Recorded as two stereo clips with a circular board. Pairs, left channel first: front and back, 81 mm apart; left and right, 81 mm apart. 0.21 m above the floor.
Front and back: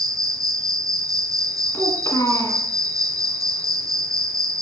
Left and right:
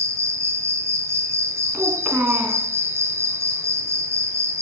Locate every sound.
0.0 s an insect: 145° right, 0.9 m
1.7 s a child speaking: 20° right, 1.7 m